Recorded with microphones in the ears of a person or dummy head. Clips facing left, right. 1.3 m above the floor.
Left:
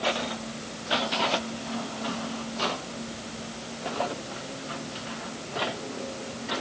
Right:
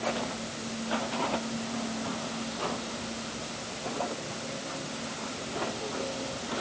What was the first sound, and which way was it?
Only background noise.